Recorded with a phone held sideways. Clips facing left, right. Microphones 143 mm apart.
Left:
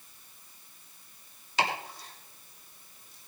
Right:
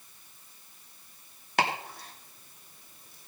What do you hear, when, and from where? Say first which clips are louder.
1.6 s chopping: right 2 dB; 60° right (ahead or behind), 2.5 m